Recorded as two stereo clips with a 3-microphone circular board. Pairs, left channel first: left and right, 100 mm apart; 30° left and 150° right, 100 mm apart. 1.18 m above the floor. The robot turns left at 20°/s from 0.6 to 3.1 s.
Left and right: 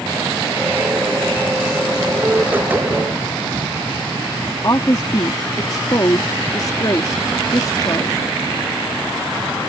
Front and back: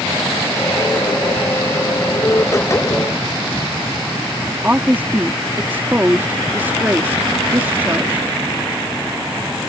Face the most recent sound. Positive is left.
turn(degrees=140)